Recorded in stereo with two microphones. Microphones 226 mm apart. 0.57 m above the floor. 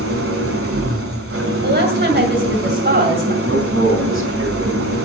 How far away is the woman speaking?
About 2.5 m.